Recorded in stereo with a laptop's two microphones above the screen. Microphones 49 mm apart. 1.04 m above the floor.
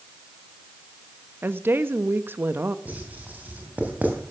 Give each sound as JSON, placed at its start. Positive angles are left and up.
{"t": 1.4, "sound": "a woman speaking", "side_deg": -50, "distance_m": 1.1}
{"t": 2.9, "sound": "writing", "side_deg": -35, "distance_m": 3.0}